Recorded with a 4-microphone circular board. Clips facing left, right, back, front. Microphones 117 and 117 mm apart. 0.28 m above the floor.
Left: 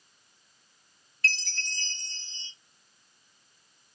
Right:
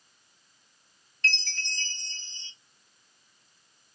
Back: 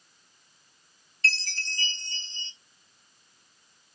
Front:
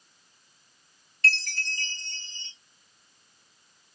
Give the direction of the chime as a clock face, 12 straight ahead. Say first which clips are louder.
Even, front 3 dB; 12 o'clock.